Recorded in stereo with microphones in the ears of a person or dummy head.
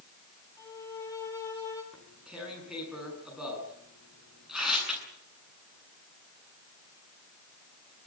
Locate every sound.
0.6 s a violin: 20° left (ahead or behind), 4 m
1.9 s tearing paper: 5° right (ahead or behind), 9.5 m